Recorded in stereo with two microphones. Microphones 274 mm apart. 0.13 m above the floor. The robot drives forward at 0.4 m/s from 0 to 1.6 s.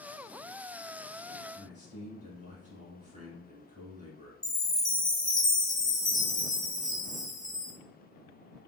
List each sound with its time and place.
1.6 s a man speaking: 25° right (ahead or behind), 1.1 m
4.4 s a chime: 15° left (ahead or behind), 1.2 m